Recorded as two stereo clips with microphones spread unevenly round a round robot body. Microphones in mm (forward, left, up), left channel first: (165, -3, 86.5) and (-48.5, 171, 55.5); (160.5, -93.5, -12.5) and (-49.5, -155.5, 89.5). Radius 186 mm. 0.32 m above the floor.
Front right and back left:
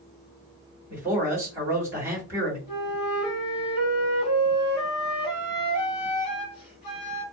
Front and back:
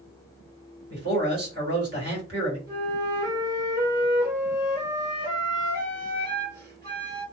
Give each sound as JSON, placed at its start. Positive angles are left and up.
{"t": 0.9, "sound": "a man speaking", "azimuth_deg": -150, "distance_m": 1.8}
{"t": 2.7, "sound": "a flute", "azimuth_deg": -110, "distance_m": 2.0}